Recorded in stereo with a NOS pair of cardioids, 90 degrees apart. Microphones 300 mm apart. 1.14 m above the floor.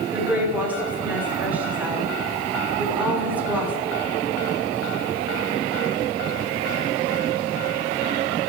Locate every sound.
0.1 s a woman speaking: 5° right, 3 m